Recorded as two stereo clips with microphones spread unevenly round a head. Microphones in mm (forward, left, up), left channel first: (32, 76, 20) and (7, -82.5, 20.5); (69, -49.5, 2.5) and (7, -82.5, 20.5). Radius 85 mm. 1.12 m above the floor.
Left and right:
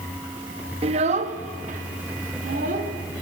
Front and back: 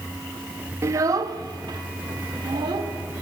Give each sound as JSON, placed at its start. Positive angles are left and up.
{"t": 0.8, "sound": "a child speaking", "azimuth_deg": -150, "distance_m": 0.6}